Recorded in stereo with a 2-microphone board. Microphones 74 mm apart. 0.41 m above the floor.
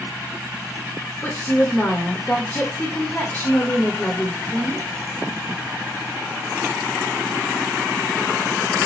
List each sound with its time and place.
1.2 s a woman speaking: 25° left (ahead or behind), 0.8 m